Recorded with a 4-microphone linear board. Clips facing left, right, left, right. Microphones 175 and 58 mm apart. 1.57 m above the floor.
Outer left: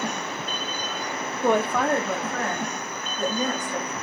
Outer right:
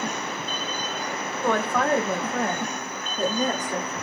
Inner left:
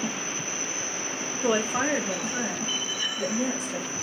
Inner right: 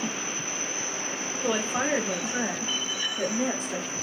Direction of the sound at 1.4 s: 20° left (ahead or behind).